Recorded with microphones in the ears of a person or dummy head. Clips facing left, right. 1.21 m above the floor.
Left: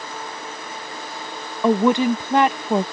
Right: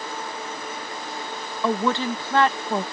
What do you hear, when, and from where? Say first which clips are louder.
1.6 s a woman speaking: left 7 dB; 15° left (ahead or behind)